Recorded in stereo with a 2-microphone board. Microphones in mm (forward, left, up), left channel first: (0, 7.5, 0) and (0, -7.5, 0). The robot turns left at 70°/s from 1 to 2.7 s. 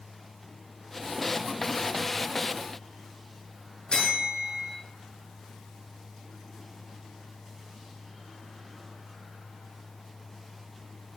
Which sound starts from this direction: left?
A bell, at 3.9 s.